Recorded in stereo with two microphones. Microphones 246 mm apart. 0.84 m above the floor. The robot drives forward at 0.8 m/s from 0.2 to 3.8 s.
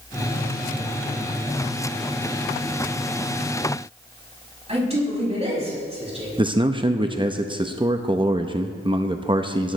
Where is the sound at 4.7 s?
25° right (ahead or behind), 6.5 m.